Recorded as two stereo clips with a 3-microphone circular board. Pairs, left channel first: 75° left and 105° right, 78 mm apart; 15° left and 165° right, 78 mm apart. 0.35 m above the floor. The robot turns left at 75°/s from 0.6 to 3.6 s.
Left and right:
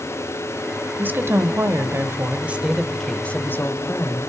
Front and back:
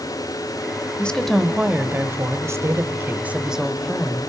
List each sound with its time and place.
1.0 s a woman speaking: 50° right, 1.5 m; by 4.3 s 115° left, 1.5 m